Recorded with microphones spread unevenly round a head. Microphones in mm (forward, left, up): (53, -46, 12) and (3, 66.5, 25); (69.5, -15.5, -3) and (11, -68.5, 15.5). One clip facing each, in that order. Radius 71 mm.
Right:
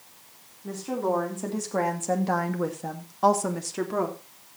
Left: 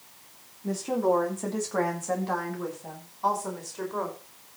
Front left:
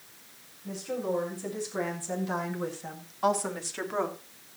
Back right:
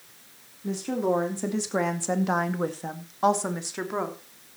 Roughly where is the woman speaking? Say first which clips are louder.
Left 2 dB, back right 6 dB; behind.